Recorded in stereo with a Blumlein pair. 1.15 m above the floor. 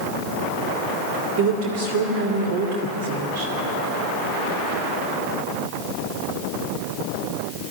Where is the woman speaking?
50° right, 2.5 m.